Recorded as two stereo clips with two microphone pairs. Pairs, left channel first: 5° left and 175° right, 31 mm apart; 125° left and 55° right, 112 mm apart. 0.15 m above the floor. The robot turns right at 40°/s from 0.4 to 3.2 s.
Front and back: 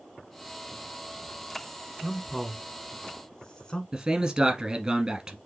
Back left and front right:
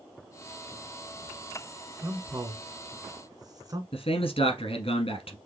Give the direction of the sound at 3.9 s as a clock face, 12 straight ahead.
8 o'clock.